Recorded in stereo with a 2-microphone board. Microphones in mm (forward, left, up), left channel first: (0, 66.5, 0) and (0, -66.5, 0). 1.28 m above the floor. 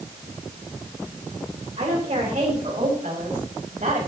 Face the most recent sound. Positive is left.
turn(degrees=-85)